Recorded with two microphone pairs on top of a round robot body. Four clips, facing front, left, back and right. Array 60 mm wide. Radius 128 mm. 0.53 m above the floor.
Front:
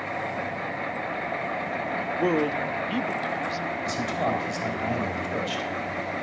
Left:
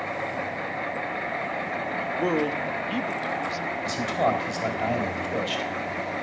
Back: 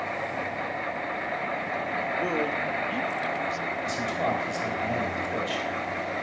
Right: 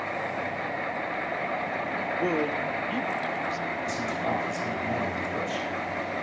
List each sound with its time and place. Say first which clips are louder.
2.2 s a man speaking: left 2 dB, front 6 dB; 55° left, 0.6 m
3.8 s a man speaking: left 8 dB, front 1 dB; 90° left, 3.5 m